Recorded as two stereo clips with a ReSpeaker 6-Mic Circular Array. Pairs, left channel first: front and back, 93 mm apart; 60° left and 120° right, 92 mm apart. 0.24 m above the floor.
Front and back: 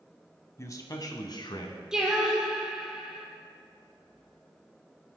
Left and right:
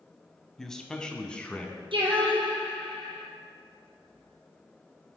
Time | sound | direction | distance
0.6 | a man speaking | 20° right | 1.1 m
1.9 | singing | 95° right | 2 m